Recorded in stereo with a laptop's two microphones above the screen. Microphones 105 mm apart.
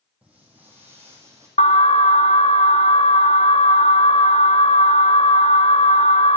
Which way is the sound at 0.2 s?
10° right (ahead or behind).